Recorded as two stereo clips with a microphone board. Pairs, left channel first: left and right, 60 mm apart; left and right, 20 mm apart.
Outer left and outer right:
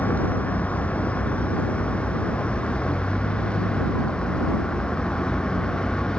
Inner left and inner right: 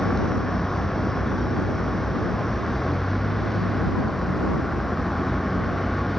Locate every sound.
0.0 s a vehicle: 25° left (ahead or behind); by 6.2 s 15° left (ahead or behind)